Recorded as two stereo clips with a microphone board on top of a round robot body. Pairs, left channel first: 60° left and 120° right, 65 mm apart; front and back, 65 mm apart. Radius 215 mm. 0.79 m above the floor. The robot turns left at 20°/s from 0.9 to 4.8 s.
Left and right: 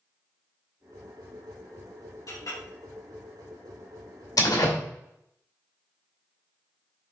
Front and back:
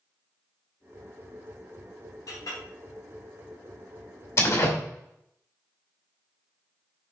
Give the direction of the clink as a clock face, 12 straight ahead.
11 o'clock.